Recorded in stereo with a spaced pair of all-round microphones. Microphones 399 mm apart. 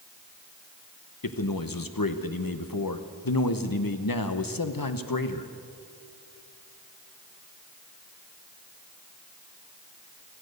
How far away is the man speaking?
About 0.9 m.